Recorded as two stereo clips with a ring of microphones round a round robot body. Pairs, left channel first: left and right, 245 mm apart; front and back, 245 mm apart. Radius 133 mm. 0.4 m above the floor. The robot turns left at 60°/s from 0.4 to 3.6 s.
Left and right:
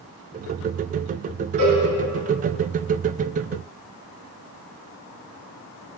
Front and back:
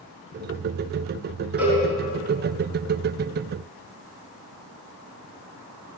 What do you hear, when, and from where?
1.6 s a cowbell: 95° right, 2.5 m; by 1.8 s 110° right, 2.5 m